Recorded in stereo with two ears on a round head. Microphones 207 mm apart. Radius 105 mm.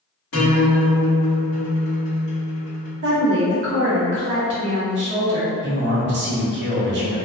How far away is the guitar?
About 1.1 m.